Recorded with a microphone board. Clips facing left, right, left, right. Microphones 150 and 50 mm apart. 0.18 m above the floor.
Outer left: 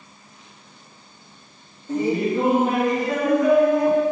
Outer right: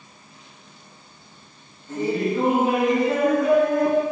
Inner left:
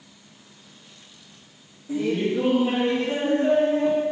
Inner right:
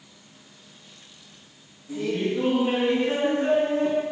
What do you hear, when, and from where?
1.9 s laughter: 20° left (ahead or behind), 1.7 m; by 4.0 s 40° right (ahead or behind), 2.5 m